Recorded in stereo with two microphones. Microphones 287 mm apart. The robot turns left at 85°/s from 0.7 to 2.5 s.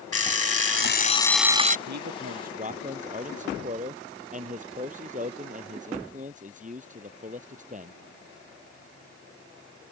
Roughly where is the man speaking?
Right.